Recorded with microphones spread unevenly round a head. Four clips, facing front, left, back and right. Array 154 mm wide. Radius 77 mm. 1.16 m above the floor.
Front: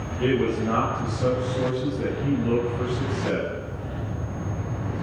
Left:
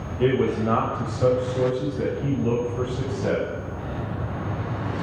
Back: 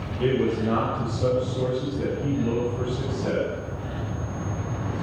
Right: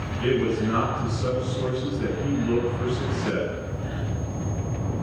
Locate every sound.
0.2 s a man speaking: 95° left, 7 m